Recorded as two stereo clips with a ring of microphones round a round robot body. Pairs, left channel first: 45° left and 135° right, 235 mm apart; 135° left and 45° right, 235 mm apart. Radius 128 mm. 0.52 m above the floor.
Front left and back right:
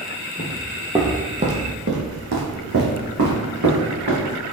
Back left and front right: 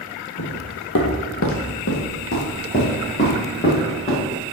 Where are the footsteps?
105° left, 0.8 m; by 4.4 s 160° right, 3 m.